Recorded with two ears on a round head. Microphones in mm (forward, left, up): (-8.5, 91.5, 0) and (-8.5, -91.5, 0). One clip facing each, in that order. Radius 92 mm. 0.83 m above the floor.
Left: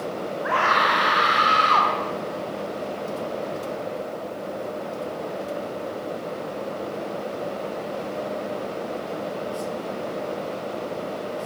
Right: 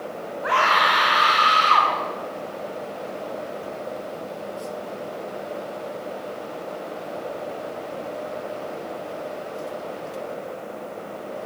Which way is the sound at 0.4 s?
45° right (ahead or behind).